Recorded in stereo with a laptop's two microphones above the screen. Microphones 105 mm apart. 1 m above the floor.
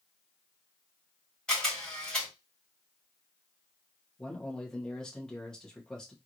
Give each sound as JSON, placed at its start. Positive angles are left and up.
{"t": 1.5, "sound": "a camera shutter", "side_deg": 5, "distance_m": 2.0}
{"t": 4.2, "sound": "a man speaking", "side_deg": 5, "distance_m": 1.1}